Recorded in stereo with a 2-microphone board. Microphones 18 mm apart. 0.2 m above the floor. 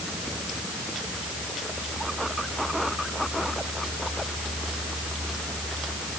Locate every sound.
Only background noise.